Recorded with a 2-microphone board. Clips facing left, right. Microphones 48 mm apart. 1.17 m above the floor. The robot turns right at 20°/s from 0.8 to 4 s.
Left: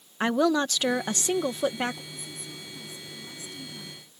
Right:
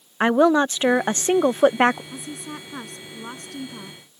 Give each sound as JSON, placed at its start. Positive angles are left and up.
{"t": 0.2, "sound": "a woman speaking", "side_deg": -30}
{"t": 2.1, "sound": "a woman speaking", "azimuth_deg": -90}